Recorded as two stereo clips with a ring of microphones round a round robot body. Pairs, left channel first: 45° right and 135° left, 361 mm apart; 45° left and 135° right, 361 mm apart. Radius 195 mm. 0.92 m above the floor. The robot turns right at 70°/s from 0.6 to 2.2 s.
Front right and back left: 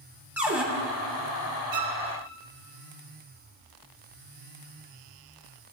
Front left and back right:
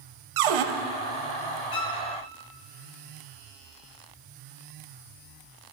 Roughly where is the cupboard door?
Behind right.